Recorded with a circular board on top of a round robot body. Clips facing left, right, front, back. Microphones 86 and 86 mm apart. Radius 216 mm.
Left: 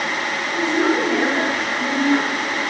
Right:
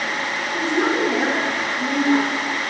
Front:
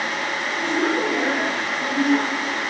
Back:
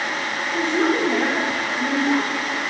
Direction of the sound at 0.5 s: 160° right.